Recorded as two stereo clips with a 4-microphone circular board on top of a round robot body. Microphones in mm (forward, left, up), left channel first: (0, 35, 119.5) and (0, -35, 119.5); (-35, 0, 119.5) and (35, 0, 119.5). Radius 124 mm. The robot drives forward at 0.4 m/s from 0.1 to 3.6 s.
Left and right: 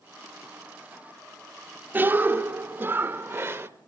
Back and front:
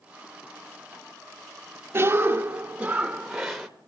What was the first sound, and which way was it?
A cough, 35° right.